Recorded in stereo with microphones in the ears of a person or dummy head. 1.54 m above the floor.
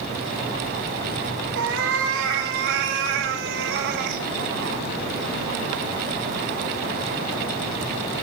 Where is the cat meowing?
75° right (ahead or behind), 3 m; by 4.2 s 60° right (ahead or behind), 1.6 m.